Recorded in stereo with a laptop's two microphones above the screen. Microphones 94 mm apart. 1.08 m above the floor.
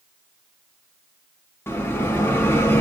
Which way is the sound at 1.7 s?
25° left (ahead or behind).